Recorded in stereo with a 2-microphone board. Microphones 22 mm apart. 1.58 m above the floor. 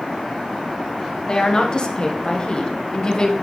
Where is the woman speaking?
35° left (ahead or behind), 1.2 m.